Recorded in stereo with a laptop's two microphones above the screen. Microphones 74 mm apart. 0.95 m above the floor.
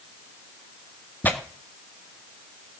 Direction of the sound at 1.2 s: 25° left (ahead or behind).